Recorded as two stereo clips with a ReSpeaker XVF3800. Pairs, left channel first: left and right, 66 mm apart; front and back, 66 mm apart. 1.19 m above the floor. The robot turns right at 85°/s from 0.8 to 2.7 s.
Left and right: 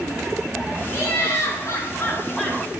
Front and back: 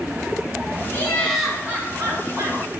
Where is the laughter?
50° left, 3.5 m; by 2.6 s 170° right, 3.5 m.